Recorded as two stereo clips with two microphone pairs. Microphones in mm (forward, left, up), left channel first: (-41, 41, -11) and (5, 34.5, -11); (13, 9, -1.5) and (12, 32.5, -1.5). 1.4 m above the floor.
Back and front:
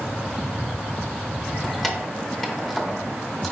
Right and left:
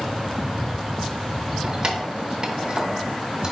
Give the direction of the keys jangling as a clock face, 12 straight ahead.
9 o'clock.